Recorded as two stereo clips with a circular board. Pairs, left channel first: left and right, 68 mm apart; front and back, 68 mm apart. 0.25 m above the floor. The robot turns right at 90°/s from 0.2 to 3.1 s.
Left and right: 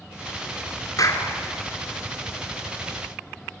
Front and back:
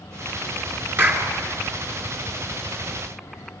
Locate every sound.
1.0 s a clap: 120° left, 3.5 m; by 1.3 s 150° left, 3.5 m